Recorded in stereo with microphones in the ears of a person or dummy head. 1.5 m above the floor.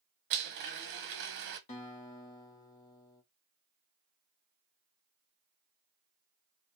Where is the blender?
65° right (ahead or behind), 0.9 m.